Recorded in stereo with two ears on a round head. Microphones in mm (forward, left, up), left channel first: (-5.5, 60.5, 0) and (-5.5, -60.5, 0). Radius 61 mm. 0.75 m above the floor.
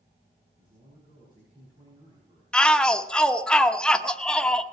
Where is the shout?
5° left (ahead or behind), 0.8 m.